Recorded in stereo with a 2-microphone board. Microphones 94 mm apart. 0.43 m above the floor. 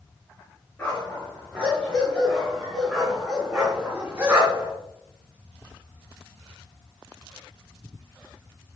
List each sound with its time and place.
0.8 s a dog barking: 15° left (ahead or behind), 3.5 m; by 4.7 s 25° right (ahead or behind), 2 m